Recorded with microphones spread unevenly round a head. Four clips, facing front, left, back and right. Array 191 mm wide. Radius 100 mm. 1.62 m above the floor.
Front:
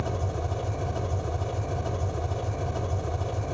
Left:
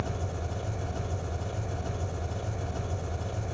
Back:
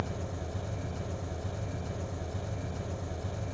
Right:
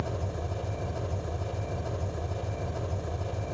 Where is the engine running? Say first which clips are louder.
Right 1 dB, front 6 dB; 15° right, 2.5 m.